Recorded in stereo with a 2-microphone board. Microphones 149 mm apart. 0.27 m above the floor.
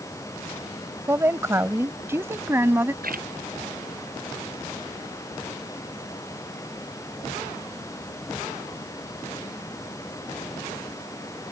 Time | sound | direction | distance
1.1 | a woman speaking | 15° right (ahead or behind) | ?
3.0 | a splash | 75° right (ahead or behind) | ?